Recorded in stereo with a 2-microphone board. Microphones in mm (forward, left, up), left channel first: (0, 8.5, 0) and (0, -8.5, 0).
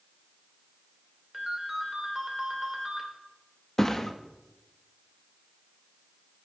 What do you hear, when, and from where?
1.3 s a ringtone: 15° right (ahead or behind), 3 m
3.8 s a thud: 30° left (ahead or behind), 1.1 m